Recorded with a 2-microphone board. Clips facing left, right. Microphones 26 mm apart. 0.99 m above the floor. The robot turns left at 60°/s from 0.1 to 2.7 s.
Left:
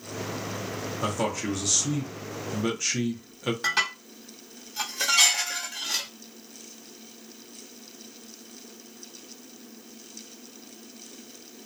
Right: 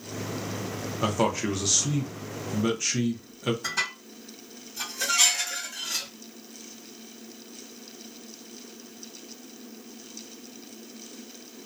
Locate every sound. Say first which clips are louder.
1.0 s a man speaking: right 3 dB; 20° right (ahead or behind), 0.6 m; by 3.5 s centre (ahead or behind), 0.6 m
3.6 s dishes clattering: left 4 dB; 65° left (ahead or behind), 1.0 m